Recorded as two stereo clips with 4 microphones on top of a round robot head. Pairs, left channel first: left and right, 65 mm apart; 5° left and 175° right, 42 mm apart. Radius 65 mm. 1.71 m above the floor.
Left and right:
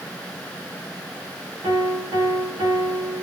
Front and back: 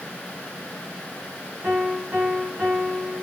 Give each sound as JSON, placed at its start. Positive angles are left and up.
{"t": 1.6, "sound": "a piano", "azimuth_deg": -110, "distance_m": 1.9}